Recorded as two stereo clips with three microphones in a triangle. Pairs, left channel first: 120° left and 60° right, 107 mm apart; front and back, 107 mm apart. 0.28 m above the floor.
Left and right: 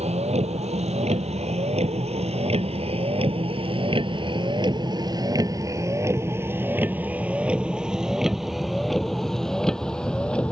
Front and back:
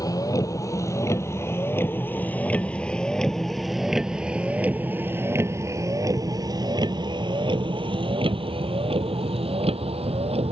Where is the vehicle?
55° right; by 10.5 s 160° right.